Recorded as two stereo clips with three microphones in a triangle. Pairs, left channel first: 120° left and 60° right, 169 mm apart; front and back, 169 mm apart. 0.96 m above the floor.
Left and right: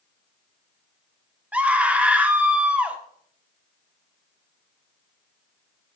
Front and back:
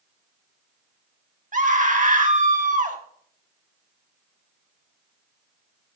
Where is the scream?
140° right, 1.8 m.